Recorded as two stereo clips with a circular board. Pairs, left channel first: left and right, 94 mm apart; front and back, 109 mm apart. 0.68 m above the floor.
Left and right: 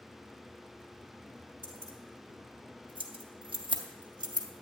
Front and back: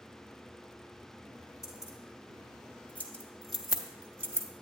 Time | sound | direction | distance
1.6 | keys jangling | 55° right | 1.7 m